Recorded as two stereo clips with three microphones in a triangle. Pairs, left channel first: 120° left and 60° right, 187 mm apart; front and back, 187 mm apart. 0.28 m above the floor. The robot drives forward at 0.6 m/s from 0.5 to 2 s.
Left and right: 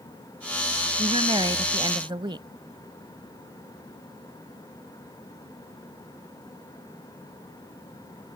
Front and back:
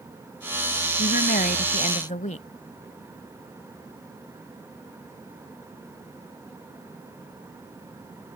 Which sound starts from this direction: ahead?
A woman speaking, at 1.0 s.